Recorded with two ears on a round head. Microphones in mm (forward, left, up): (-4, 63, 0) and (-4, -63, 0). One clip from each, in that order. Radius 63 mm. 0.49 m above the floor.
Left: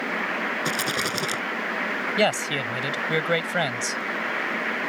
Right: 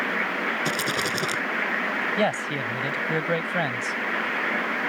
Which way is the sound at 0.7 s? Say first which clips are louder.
Even; 10° left (ahead or behind).